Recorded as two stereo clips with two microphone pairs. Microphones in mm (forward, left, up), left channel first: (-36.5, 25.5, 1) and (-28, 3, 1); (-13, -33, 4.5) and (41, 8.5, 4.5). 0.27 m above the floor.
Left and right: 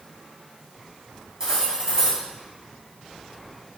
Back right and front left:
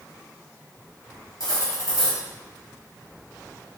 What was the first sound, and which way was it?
Cutlery clinking, 125° right.